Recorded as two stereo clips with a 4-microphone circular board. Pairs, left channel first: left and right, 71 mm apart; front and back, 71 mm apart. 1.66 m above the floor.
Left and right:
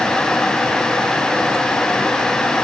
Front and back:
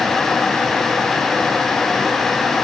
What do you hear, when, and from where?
Only background noise.